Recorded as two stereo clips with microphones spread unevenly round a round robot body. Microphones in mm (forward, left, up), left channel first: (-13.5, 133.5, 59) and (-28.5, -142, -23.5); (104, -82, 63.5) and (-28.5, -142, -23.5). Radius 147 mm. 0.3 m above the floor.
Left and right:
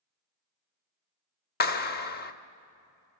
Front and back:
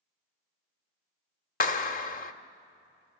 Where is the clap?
40° left, 0.8 m.